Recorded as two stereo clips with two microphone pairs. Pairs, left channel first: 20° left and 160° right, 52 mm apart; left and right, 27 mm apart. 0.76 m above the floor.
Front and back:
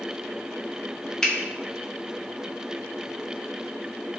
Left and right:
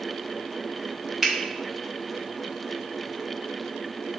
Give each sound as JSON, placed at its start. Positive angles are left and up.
{"t": 1.2, "sound": "a finger snap", "azimuth_deg": -35, "distance_m": 0.7}